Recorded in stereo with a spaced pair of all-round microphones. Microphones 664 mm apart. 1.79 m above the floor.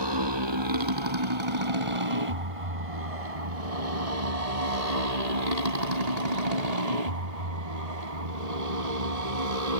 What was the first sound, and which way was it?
A motorcycle, 40° right (ahead or behind).